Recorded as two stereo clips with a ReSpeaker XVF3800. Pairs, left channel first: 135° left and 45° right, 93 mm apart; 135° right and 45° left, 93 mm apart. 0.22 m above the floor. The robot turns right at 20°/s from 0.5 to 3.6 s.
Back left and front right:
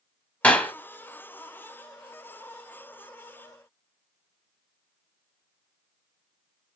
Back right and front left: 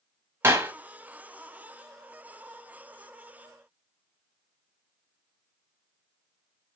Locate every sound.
0.4 s a clap: 75° left, 0.9 m; by 0.7 s 80° left, 0.9 m